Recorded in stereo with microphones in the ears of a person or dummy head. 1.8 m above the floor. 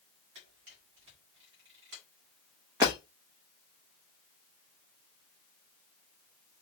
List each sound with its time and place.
0.3 s a camera shutter: 70° right (ahead or behind), 1.6 m
2.8 s breaking glass: 20° right (ahead or behind), 1.2 m